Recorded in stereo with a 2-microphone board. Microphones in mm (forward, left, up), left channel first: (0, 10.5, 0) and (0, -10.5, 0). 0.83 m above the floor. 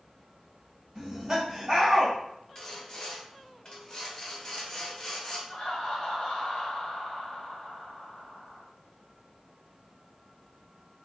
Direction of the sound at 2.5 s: 30° left (ahead or behind).